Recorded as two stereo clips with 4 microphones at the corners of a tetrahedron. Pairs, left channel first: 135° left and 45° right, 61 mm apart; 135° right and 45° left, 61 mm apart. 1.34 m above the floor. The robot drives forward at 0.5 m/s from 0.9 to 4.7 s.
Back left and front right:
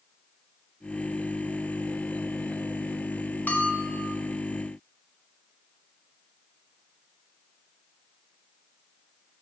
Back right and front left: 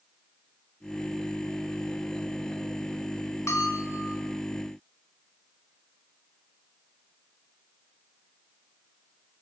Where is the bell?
165° right, 0.8 m; by 4.2 s 170° right, 1.1 m.